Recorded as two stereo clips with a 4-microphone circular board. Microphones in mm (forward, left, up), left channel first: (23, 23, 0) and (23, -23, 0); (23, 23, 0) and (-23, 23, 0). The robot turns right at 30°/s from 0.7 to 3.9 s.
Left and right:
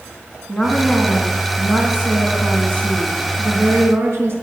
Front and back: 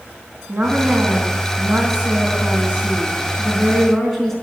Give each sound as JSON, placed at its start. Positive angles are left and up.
{"t": 0.5, "sound": "a woman speaking", "azimuth_deg": -175, "distance_m": 3.0}